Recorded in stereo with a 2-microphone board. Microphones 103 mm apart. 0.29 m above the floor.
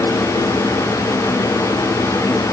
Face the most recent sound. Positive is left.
No sound to turn to.